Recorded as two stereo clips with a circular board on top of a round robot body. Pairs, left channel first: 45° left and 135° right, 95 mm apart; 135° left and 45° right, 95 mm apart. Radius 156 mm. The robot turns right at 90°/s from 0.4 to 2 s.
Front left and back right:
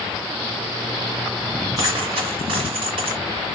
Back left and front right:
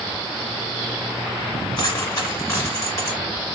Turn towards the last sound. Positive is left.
turn(degrees=-165)